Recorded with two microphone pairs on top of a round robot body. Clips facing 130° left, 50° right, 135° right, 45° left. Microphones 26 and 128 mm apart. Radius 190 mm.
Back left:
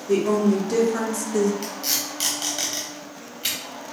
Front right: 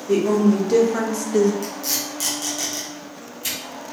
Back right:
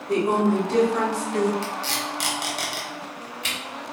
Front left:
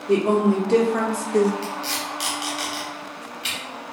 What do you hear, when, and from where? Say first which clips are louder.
0.1 s a woman speaking: front right 2 dB, front left 2 dB; 25° left, 1.5 m; by 1.5 s 10° right, 0.7 m
1.6 s tape being pulled: front right 1 dB, even; straight behind, 0.8 m